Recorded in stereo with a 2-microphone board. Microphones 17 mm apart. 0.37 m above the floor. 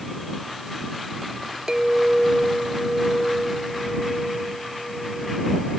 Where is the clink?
30° right (ahead or behind).